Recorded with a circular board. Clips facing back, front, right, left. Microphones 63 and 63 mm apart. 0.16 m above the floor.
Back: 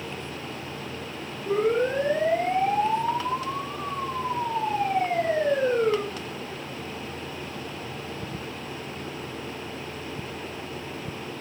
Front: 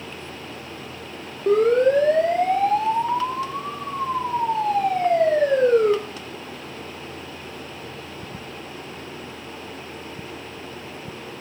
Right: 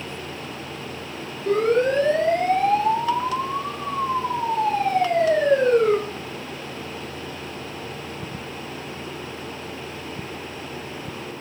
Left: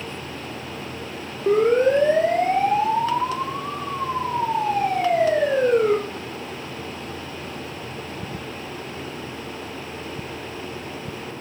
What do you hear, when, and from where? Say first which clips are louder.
1.5 s a siren: front 7 dB, left 2 dB; 20° left, 9 m; by 6.0 s 5° left, 11.5 m